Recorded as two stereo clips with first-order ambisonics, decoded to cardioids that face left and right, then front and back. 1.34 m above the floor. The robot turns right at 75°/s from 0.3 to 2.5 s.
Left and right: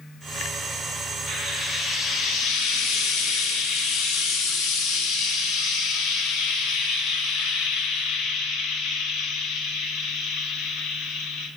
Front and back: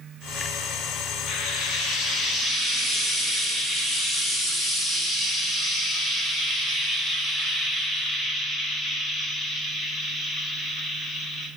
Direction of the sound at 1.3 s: 20° right.